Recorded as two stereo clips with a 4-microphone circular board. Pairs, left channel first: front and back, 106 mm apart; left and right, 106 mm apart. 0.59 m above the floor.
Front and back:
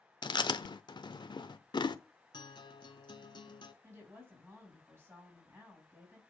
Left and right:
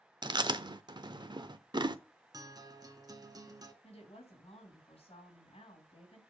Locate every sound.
0.2 s chewing: 45° right, 0.7 m
2.3 s a guitar: 40° right, 1.1 m
3.8 s a woman speaking: 115° left, 4.5 m